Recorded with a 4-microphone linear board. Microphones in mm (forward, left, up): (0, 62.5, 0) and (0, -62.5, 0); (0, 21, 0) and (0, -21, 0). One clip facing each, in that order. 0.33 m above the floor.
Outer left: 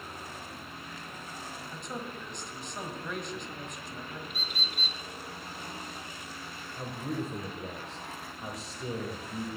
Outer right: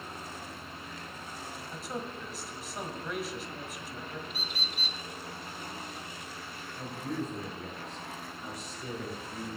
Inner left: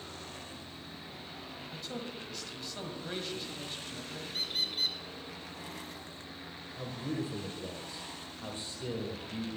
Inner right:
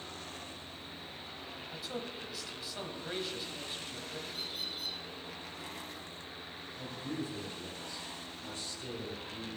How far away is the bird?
About 1.1 m.